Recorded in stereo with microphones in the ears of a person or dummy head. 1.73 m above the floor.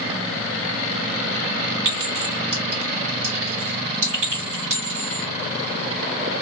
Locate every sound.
1.9 s a clink: 60° right (ahead or behind), 1.9 m